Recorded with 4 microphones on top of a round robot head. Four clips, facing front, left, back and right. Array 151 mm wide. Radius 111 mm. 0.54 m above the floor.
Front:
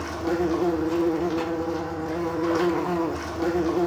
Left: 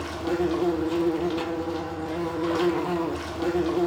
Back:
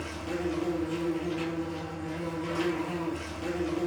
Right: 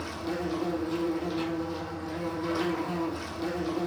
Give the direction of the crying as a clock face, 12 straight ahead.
No crying in this recording.